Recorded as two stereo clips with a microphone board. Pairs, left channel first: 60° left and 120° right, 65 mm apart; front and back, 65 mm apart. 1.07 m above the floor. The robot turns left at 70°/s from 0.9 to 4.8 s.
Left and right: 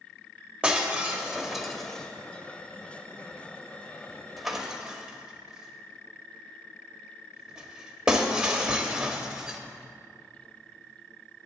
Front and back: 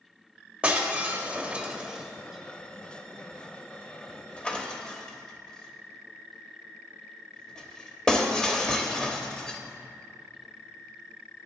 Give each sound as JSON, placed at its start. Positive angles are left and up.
{"t": 0.6, "sound": "breaking glass", "azimuth_deg": -155, "distance_m": 0.8}